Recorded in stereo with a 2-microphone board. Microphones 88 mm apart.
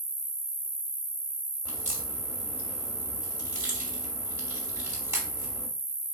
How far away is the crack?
About 1.4 m.